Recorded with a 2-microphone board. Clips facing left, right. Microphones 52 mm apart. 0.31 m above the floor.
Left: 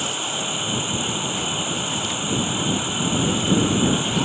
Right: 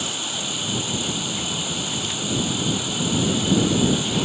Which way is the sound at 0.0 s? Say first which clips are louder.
Left 3 dB; 25° left (ahead or behind).